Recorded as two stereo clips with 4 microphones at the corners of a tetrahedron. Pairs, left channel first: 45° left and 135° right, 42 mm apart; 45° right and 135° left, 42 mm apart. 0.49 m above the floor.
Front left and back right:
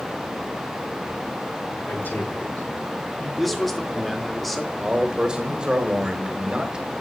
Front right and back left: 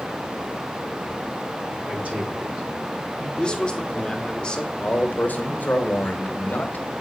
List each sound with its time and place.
1.9 s a man speaking: 75° left, 5 m
3.4 s a man speaking: 35° right, 1.0 m
4.8 s a man speaking: 70° right, 1.2 m